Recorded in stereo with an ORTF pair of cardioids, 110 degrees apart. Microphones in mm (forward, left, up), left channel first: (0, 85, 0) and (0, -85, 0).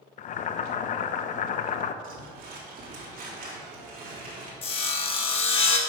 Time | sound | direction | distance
0.2 | boiling | 50° left | 0.6 m
2.0 | crumpling | 55° right | 3.5 m
4.6 | sawing | 35° left | 1.6 m